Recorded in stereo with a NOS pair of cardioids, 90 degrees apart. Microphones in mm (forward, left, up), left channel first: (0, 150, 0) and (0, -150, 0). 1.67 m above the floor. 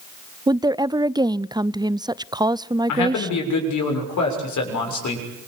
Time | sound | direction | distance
0.5 | a woman speaking | 15° right | 0.5 m
2.9 | a man speaking | 70° left | 7 m